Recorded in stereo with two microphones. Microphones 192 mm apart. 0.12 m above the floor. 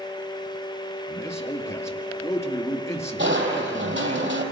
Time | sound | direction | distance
1.1 | a man speaking | 15° left (ahead or behind) | 2 m
3.2 | crushing | 70° right (ahead or behind) | 3 m